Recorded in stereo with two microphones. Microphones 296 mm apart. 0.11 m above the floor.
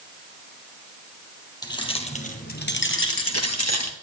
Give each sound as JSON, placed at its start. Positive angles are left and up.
{"t": 1.6, "sound": "keys jangling", "side_deg": 15, "distance_m": 2.5}